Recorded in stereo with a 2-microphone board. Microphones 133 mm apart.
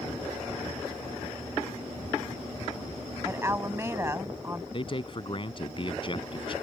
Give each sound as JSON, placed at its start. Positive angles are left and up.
{"t": 3.2, "sound": "a woman speaking", "side_deg": -20}
{"t": 4.7, "sound": "a man speaking", "side_deg": 40}